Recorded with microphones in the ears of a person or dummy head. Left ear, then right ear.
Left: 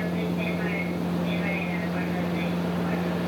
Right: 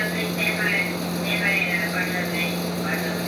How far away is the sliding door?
No sliding door in this recording.